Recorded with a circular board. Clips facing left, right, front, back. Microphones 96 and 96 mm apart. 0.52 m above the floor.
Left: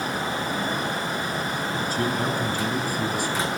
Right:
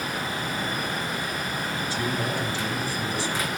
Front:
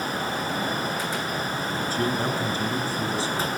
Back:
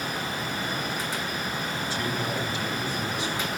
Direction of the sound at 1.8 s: 45° left.